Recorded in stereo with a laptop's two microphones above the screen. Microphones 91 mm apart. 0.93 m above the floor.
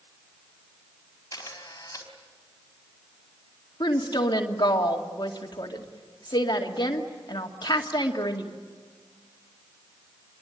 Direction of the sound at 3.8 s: 50° left (ahead or behind).